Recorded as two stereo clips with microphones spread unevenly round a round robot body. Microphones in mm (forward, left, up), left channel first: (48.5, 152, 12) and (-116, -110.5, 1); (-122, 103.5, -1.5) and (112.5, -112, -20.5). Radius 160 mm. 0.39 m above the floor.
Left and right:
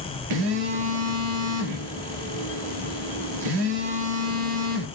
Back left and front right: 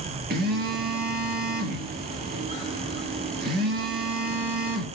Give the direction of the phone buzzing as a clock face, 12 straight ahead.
3 o'clock.